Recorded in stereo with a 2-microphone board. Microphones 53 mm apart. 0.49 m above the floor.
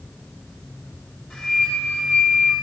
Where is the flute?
Centre (ahead or behind), 6 m.